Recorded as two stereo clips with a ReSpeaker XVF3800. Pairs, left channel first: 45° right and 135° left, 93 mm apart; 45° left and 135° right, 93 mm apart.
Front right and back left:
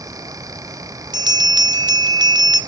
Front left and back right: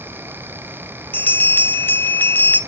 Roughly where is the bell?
Left.